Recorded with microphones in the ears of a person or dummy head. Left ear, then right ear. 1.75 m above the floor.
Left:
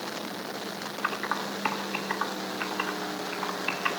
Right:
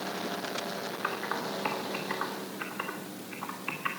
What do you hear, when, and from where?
1.0 s typing on a keyboard: 20° left (ahead or behind), 2.5 m